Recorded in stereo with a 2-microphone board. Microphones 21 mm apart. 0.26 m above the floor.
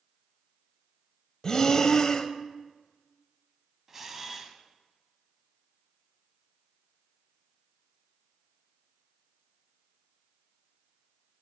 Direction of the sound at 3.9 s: 15° right (ahead or behind).